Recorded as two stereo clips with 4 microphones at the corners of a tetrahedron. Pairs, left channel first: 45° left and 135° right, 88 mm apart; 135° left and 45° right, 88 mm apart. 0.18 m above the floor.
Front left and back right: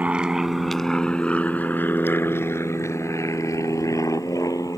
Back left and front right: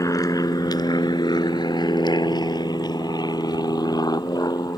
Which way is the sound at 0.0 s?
160° left.